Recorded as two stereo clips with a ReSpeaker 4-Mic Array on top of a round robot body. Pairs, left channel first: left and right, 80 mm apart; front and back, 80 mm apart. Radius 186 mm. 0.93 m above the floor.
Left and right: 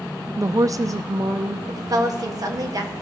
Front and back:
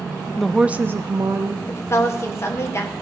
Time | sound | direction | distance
0.4 | a woman speaking | 75° right | 0.6 m
1.7 | a woman speaking | 50° right | 1.7 m